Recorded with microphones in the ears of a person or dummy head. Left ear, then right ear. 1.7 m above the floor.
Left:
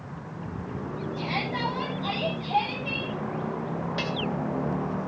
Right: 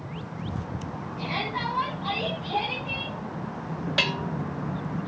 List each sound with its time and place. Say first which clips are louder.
1.2 s a shout: even; 85° left, 9 m; by 3.1 s 80° left, 11 m
4.0 s a bell: right 6 dB; 30° right (ahead or behind), 0.7 m